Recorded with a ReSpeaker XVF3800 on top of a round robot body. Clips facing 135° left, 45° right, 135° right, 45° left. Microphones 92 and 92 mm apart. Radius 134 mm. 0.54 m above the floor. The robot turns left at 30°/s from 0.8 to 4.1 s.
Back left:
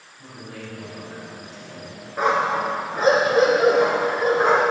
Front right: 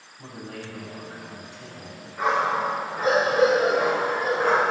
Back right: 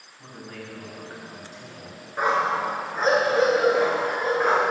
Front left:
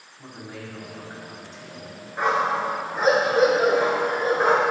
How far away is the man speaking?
About 4.5 m.